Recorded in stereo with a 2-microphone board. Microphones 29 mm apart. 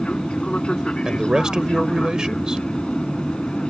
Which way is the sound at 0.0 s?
40° left (ahead or behind).